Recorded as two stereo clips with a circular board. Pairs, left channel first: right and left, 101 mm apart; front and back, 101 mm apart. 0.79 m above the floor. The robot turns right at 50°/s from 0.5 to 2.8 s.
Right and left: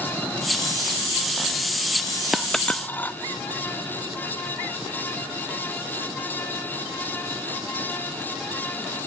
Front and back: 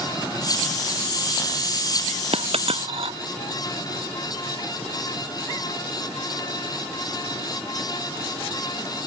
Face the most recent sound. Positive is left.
turn(degrees=-160)